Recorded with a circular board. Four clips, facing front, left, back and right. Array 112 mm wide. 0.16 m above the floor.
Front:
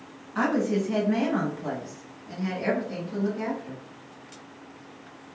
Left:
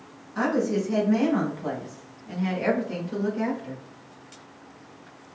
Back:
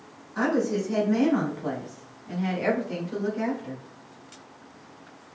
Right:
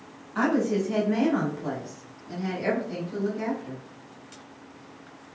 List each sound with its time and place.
0.3 s a woman speaking: 40° right, 1.4 m; by 3.8 s 130° left, 2 m